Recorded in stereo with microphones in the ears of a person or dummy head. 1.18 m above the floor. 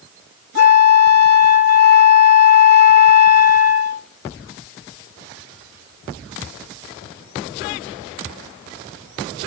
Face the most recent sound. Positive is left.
turn(degrees=50)  # may be behind; listen again after turning